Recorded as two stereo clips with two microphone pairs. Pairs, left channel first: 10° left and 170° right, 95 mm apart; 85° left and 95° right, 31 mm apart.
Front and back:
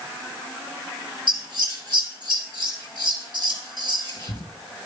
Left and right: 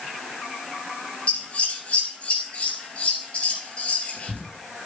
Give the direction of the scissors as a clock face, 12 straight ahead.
11 o'clock.